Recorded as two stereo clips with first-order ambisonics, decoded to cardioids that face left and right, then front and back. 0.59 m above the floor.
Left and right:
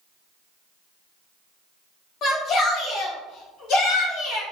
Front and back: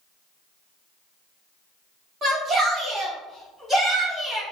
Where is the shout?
130° left, 1.2 m; by 4.4 s 100° left, 2.0 m.